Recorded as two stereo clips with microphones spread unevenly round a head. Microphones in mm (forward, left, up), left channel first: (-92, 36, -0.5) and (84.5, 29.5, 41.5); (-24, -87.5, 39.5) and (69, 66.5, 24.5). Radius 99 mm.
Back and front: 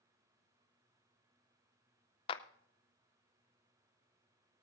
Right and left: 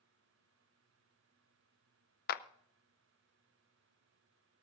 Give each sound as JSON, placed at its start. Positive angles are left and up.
{"t": 2.3, "sound": "a clap", "azimuth_deg": -115, "distance_m": 0.5}